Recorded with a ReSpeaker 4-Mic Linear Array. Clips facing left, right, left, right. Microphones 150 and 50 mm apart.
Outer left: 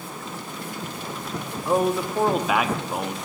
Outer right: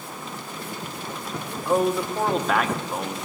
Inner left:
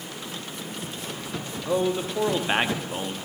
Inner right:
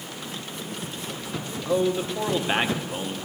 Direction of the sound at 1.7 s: 5° left (ahead or behind).